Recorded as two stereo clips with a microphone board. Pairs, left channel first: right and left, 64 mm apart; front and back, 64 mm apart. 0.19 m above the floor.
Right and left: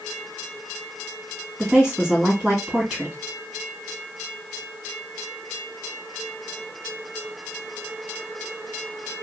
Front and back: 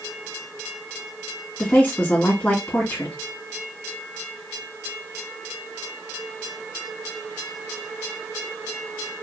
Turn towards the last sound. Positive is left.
turn(degrees=25)